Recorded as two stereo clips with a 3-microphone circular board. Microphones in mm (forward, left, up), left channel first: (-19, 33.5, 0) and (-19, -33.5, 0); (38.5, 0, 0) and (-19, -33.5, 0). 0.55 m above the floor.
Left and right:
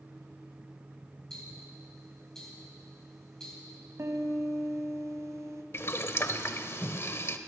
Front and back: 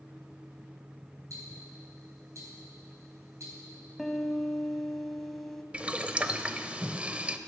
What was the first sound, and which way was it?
Ticking, 170° left.